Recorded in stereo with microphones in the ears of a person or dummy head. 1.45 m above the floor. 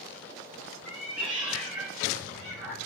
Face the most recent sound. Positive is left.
turn(degrees=0)  # may be behind; listen again after turning